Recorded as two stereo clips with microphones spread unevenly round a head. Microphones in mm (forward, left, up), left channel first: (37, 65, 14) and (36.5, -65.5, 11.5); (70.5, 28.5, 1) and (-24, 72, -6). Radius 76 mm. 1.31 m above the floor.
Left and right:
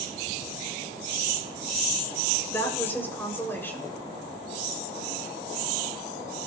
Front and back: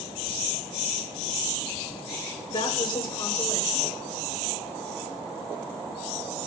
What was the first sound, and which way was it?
A woman speaking, 15° left.